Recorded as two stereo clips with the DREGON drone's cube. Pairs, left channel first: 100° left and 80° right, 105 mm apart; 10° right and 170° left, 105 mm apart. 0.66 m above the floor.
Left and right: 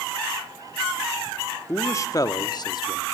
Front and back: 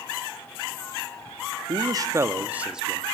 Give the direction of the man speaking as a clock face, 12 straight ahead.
7 o'clock.